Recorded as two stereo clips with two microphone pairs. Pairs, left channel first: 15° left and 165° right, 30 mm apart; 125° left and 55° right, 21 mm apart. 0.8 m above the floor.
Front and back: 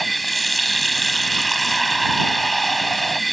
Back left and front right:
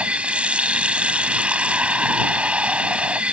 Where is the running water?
70° right.